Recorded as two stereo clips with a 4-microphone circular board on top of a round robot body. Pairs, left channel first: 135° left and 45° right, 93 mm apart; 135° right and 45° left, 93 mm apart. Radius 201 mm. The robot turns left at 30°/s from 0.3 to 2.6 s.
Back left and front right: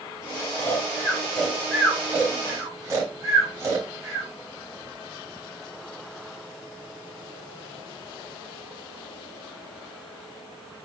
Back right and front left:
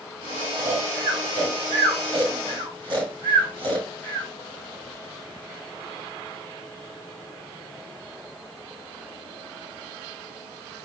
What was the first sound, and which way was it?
Snoring, 75° left.